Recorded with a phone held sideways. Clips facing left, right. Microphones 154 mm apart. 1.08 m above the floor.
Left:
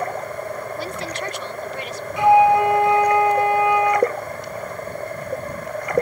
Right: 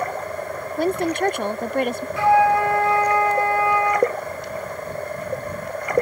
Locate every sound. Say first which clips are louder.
0.8 s a woman speaking: right 8 dB; 55° right (ahead or behind)
2.2 s a flute: left 3 dB; 20° left (ahead or behind)